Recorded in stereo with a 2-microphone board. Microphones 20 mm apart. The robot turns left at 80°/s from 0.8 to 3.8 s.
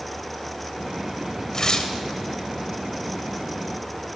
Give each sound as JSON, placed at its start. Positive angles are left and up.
{"t": 1.5, "sound": "tearing paper", "azimuth_deg": 125, "distance_m": 0.6}